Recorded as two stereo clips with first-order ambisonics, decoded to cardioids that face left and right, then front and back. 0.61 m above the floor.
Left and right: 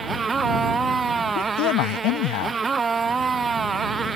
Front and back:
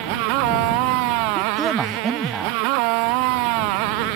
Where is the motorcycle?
165° right.